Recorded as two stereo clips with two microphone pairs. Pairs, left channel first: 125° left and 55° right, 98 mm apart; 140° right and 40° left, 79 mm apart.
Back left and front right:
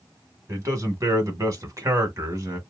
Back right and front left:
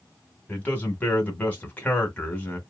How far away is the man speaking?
About 1.2 m.